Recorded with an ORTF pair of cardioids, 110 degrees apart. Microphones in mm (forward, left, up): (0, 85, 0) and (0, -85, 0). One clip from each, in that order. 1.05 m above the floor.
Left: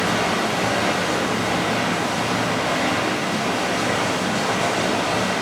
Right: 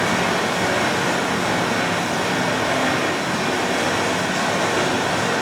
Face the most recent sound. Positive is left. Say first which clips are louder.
# right 1 dB
turn(degrees=-50)